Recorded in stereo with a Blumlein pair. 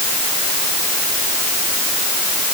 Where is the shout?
No shout in this recording.